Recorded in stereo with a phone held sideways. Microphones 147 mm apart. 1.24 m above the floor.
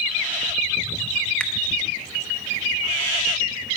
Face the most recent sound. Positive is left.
turn(degrees=10)  # may be behind; listen again after turning